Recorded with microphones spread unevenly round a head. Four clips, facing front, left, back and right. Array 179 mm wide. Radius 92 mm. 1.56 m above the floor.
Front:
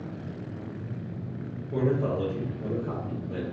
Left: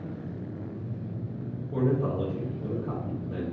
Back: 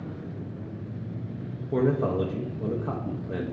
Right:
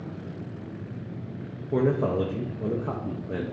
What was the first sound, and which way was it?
A man speaking, 120° right.